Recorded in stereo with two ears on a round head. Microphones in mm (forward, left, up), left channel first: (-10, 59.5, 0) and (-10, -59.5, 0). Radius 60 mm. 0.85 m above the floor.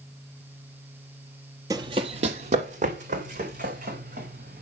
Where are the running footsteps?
30° right (ahead or behind), 1.0 m; by 4.6 s 75° right (ahead or behind), 5 m.